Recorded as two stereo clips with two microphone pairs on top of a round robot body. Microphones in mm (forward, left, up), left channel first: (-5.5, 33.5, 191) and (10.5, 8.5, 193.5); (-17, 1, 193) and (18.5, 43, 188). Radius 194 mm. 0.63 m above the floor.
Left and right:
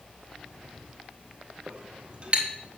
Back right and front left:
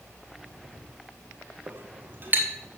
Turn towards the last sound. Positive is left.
turn(degrees=-5)